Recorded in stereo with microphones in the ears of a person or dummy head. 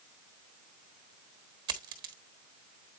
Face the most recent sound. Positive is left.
turn(degrees=-25)  # may be behind; listen again after turning